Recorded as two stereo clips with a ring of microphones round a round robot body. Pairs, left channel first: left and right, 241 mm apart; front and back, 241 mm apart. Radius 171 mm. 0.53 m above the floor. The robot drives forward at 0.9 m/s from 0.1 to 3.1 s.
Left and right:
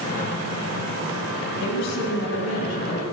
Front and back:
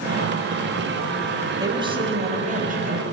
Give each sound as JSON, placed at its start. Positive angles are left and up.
{"t": 1.6, "sound": "a woman speaking", "azimuth_deg": 105, "distance_m": 2.5}